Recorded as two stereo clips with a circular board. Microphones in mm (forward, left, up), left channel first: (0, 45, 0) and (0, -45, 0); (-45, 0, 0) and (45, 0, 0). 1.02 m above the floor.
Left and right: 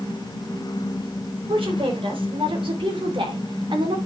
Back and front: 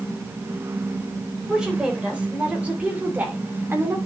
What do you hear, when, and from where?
1.5 s a woman speaking: 80° right, 4 m; by 4.0 s 60° right, 2.5 m